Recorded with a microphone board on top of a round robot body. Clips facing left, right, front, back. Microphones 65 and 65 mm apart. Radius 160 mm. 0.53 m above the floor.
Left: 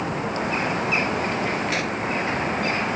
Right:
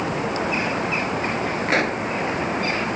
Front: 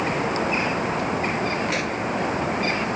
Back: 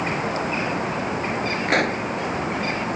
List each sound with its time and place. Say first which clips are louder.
1.7 s a pop: right 4 dB, back 4 dB; 145° right